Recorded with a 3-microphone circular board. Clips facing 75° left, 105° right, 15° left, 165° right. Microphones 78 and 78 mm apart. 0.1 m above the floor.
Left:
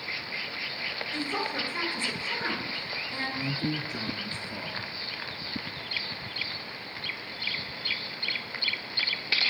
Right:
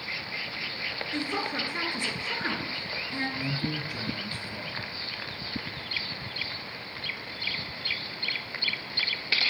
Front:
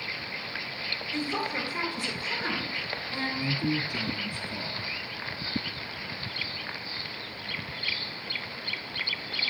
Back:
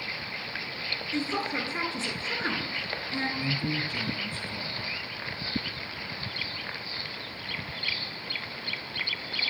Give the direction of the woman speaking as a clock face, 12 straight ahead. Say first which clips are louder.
Right 1 dB, back 1 dB; 5 o'clock.